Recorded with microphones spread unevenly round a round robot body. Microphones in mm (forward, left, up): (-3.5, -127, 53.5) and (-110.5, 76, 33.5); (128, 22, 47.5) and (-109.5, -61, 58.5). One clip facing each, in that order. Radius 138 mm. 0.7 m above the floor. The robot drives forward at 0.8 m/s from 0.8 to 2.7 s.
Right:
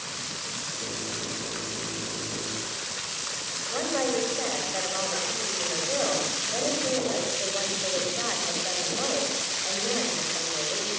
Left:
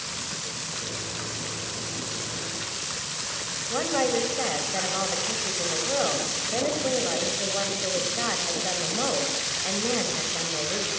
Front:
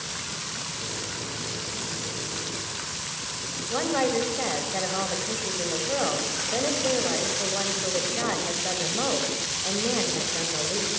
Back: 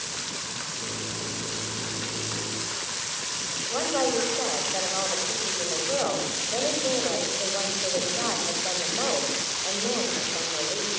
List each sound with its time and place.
3.7 s a woman speaking: 70° left, 4 m